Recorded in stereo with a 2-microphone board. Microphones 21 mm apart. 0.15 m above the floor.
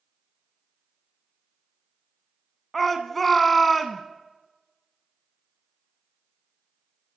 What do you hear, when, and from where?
2.7 s a shout: 10° left (ahead or behind), 1.1 m